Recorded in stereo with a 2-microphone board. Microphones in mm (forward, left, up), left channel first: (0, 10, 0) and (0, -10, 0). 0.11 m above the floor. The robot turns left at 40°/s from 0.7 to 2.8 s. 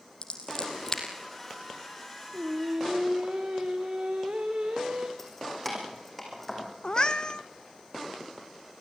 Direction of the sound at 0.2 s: 30° left (ahead or behind).